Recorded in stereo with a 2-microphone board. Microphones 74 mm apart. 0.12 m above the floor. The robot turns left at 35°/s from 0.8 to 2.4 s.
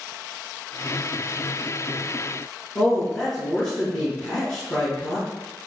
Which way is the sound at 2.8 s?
10° left (ahead or behind).